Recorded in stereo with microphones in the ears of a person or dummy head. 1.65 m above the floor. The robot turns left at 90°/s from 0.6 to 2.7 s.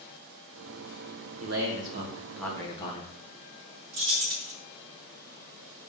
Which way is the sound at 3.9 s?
60° right (ahead or behind).